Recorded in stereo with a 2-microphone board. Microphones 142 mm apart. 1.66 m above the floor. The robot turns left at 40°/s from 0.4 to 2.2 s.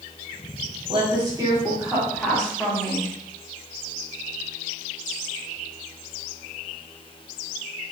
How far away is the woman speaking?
About 1.1 m.